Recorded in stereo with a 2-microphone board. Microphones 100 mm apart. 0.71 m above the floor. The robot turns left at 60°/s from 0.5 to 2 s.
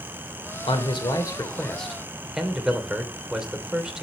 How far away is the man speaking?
About 2.5 m.